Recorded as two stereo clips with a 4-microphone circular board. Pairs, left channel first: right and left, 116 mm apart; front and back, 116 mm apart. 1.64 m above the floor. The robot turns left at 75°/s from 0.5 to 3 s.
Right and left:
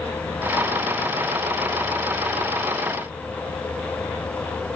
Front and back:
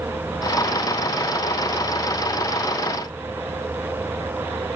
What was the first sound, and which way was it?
Only background noise.